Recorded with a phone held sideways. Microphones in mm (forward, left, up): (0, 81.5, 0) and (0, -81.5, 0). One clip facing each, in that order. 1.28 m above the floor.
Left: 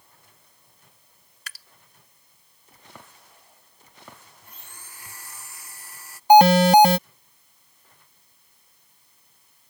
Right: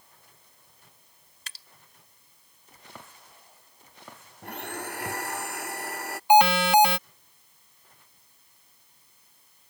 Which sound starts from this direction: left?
An alarm, at 6.3 s.